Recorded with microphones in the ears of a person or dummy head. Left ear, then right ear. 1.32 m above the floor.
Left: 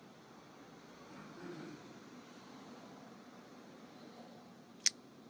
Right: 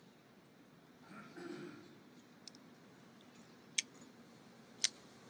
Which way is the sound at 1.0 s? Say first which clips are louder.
Right 1 dB; 60° right (ahead or behind).